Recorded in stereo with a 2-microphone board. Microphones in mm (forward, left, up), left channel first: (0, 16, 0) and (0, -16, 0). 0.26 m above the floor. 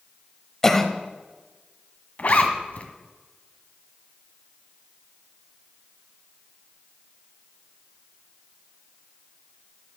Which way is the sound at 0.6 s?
15° left (ahead or behind).